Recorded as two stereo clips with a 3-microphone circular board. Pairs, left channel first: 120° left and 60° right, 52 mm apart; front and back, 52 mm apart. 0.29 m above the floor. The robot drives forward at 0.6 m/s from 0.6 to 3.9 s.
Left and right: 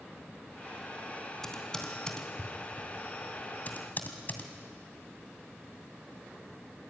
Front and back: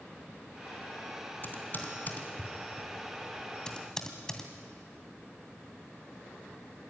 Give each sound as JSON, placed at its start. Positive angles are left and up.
{"t": 1.4, "sound": "typing on a keyboard", "azimuth_deg": 45, "distance_m": 3.0}